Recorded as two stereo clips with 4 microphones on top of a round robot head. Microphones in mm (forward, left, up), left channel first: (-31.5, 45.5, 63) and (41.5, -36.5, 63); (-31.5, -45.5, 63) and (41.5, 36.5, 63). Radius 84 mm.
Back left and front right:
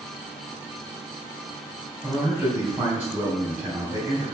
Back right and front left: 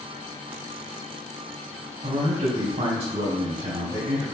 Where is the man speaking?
15° left, 3 m.